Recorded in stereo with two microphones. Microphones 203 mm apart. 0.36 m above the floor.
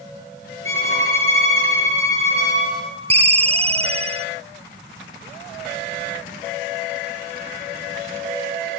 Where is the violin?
80° left, 6.5 m.